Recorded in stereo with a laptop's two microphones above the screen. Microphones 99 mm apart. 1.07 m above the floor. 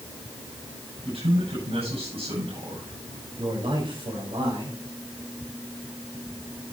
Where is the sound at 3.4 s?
60° right (ahead or behind), 5.5 m.